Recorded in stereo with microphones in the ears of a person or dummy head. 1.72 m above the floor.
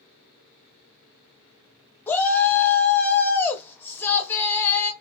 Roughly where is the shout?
Centre.